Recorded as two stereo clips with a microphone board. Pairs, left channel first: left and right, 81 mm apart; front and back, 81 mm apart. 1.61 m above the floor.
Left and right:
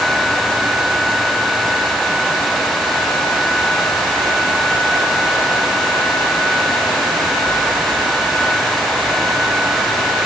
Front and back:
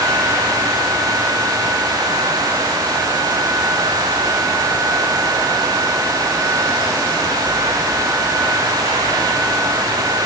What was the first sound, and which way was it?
Only background noise.